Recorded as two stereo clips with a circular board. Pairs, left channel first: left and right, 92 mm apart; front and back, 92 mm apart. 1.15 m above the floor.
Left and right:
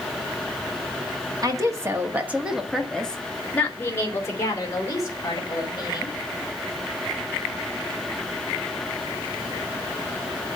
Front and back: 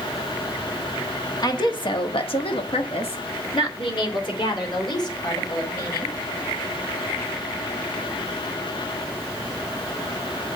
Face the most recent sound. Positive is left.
turn(degrees=45)